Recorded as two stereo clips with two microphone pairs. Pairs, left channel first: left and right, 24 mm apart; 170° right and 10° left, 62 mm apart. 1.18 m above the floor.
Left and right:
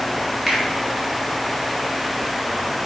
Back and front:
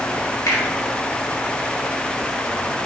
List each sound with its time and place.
0.5 s a finger snap: straight behind, 2.0 m